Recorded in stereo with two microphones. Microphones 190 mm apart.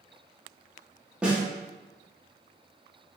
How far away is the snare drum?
About 2.5 m.